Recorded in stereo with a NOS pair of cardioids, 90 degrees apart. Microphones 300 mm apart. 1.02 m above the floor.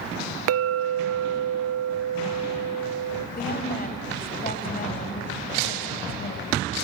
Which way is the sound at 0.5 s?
55° right.